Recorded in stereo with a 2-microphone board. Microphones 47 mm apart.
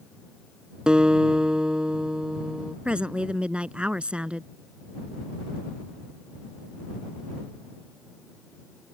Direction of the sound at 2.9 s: 25° right (ahead or behind).